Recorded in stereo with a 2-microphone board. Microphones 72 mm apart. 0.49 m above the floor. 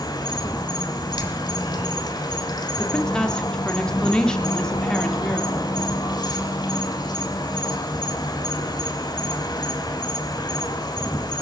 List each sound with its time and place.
0.0 s an insect: 75° left (ahead or behind), 1.6 m
2.8 s a woman speaking: 10° left (ahead or behind), 1.0 m